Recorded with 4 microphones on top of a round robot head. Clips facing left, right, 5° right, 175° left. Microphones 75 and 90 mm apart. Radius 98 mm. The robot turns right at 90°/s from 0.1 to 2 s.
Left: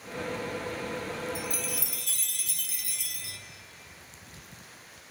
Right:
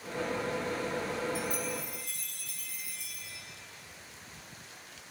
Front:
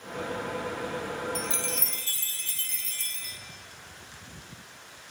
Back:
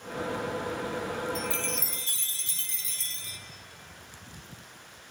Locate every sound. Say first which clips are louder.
1.4 s a chime: right 1 dB, back 1 dB; 45° left, 0.6 m; by 3.4 s 105° left, 0.6 m